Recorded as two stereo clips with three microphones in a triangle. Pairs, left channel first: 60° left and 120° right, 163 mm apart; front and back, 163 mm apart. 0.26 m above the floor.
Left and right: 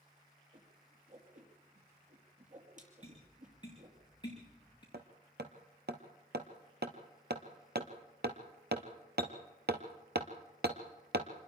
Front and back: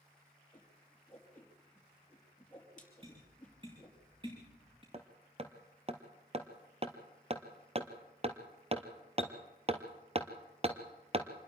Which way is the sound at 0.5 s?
85° right.